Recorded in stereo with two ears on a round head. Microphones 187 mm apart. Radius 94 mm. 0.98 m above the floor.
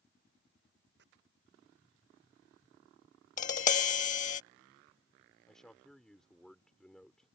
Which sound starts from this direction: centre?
A man speaking, at 5.5 s.